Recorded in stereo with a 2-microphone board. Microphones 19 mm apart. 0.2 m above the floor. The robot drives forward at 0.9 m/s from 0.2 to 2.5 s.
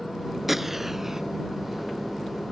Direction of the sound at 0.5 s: 15° right (ahead or behind).